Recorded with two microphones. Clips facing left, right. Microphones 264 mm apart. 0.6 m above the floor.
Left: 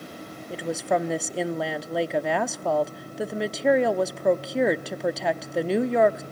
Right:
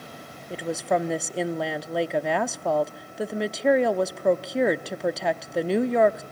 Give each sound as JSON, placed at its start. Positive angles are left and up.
{"t": 0.5, "sound": "a woman speaking", "side_deg": 0, "distance_m": 0.7}